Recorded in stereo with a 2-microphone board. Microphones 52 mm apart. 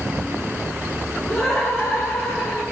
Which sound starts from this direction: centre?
Laughter, at 1.3 s.